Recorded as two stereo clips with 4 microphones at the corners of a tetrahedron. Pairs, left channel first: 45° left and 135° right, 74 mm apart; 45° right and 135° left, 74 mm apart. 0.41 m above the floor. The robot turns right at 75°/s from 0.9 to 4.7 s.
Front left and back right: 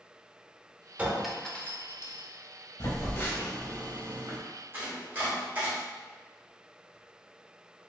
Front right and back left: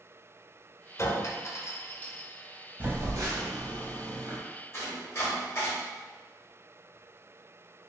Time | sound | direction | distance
1.0 | a clink | 65° right | 0.5 m
2.8 | a phone buzzing | 75° left | 0.9 m
4.7 | chopping | 80° right | 1.5 m